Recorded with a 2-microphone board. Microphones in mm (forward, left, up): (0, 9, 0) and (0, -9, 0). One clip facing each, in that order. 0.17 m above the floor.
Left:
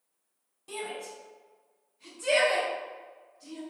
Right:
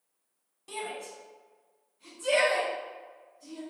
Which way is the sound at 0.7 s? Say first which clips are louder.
Even; 15° right (ahead or behind).